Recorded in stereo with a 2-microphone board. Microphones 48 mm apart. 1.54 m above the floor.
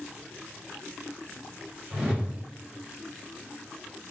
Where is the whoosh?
20° right (ahead or behind), 1.7 m.